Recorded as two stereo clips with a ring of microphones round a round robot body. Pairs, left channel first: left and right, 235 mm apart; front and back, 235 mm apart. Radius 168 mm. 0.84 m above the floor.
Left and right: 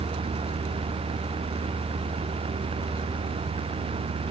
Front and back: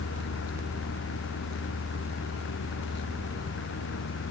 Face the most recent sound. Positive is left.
No sound to turn to.